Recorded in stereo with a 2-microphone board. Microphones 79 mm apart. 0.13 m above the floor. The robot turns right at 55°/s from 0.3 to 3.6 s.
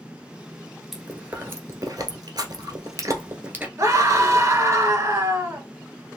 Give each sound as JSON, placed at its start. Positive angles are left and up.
{"t": 0.9, "sound": "chewing", "side_deg": -5, "distance_m": 1.2}
{"t": 3.8, "sound": "a scream", "side_deg": -45, "distance_m": 2.5}